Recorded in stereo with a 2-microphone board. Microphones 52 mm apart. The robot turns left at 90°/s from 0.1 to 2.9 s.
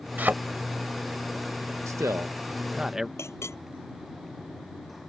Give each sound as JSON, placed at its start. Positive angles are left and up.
{"t": 0.2, "sound": "a thud", "side_deg": -35}
{"t": 1.9, "sound": "a man speaking", "azimuth_deg": -80}
{"t": 3.2, "sound": "a clink", "side_deg": 60}